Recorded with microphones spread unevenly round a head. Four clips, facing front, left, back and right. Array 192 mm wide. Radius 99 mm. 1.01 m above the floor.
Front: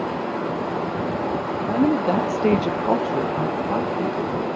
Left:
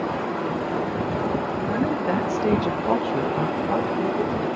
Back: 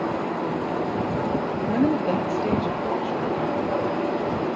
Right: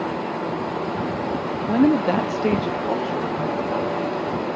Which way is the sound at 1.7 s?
85° right.